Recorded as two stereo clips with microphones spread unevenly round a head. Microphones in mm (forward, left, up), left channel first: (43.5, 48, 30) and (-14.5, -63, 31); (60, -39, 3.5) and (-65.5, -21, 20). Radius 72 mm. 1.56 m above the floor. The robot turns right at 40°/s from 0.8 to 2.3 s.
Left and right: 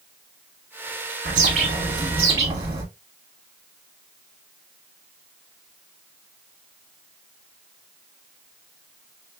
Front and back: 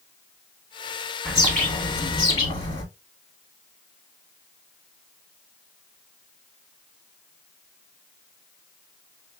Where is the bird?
105° right, 1.8 m; by 2.8 s 65° right, 1.8 m.